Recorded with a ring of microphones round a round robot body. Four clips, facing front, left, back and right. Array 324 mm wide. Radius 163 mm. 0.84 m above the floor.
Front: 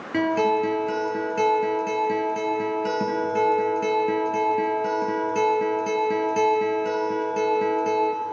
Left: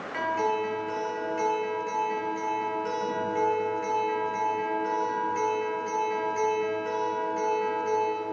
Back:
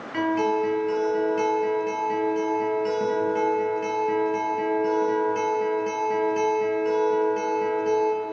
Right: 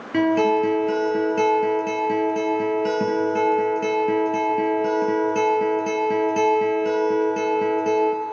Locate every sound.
0.1 s a guitar: 65° right, 4 m